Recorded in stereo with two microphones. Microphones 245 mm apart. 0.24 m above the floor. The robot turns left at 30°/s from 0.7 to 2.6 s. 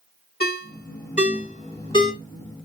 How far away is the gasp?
I don't hear a gasp.